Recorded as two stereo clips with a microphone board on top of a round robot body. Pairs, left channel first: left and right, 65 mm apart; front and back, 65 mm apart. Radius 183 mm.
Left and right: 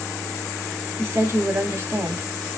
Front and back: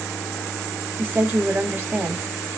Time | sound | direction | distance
1.0 | a woman speaking | 130° right | 1.8 m